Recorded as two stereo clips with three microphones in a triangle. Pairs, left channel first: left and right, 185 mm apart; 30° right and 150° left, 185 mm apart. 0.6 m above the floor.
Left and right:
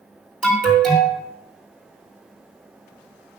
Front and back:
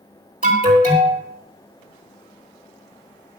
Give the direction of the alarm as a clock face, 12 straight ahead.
6 o'clock.